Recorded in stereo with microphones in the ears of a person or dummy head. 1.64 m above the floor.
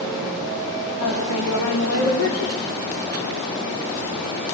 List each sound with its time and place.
1.0 s a woman speaking: 75° left (ahead or behind), 4 m